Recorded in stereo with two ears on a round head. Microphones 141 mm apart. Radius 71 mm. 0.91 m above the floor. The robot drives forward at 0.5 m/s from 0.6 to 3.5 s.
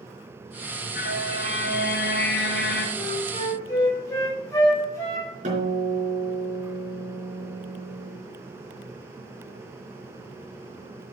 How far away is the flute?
About 2.5 m.